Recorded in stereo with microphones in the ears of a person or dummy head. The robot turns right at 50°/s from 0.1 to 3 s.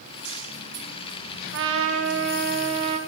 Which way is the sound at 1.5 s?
105° right.